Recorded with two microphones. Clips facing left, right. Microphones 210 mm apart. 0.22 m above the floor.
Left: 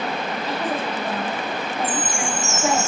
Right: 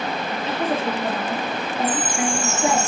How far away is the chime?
About 4 m.